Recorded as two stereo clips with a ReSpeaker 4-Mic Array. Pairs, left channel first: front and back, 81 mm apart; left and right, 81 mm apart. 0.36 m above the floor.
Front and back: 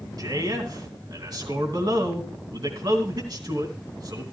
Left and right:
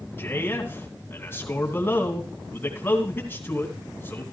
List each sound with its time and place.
0.2 s a man speaking: 150° left, 3 m